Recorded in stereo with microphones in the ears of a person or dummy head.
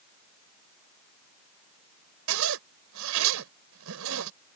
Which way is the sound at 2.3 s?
75° right (ahead or behind).